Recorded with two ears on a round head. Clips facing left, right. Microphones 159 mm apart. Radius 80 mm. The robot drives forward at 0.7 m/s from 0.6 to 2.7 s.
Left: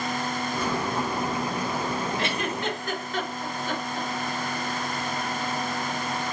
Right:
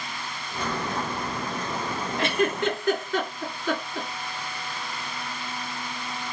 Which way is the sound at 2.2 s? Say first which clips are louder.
Right 4 dB; 55° right (ahead or behind).